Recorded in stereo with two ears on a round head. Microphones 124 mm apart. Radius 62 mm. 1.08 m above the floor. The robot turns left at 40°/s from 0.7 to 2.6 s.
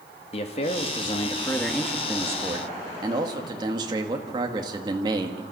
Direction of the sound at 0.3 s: 45° left.